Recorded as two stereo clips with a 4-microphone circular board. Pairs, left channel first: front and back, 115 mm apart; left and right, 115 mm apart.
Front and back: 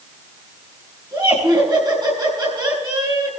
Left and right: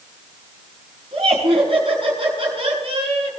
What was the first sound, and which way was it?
Laughter, 130° right.